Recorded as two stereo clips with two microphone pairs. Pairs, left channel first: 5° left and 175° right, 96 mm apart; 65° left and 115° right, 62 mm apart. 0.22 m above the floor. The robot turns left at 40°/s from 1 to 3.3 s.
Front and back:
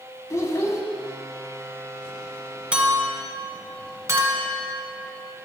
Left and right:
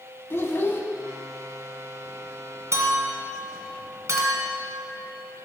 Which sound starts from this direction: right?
A clink, at 2.7 s.